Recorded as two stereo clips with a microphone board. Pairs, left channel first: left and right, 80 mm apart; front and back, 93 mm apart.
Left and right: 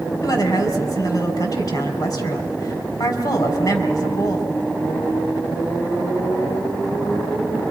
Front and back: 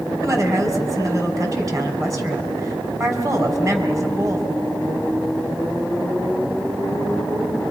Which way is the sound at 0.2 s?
125° left.